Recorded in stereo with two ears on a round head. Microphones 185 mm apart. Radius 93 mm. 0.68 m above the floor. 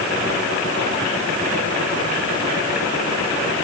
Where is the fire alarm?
No fire alarm in this recording.